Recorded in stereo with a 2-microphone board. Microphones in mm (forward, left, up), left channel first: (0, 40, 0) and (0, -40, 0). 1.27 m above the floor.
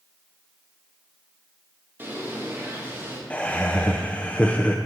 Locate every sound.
2.0 s a bird: 25° right (ahead or behind), 1.8 m
3.3 s laughter: 15° left (ahead or behind), 0.5 m